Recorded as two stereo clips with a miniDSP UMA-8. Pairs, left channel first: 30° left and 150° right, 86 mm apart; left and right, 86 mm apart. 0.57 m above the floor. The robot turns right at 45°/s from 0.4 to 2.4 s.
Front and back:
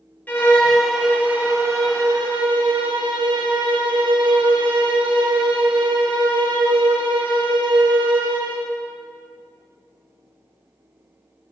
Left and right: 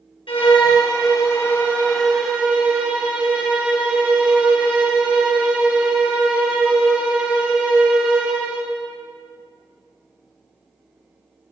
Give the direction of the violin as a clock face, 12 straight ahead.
9 o'clock.